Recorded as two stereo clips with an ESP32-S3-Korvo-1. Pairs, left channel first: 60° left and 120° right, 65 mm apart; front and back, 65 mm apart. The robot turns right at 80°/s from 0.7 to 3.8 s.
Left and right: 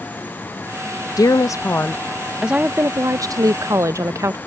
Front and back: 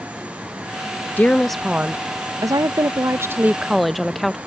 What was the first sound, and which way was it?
A woman speaking, 60° left.